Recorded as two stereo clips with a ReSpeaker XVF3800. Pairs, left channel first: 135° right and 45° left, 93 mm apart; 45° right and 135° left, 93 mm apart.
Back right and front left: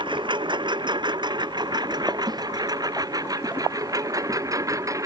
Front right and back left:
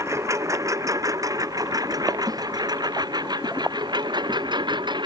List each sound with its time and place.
0.0 s a lawn mower: 75° left; by 5.1 s 100° left
2.3 s a snare drum: 85° left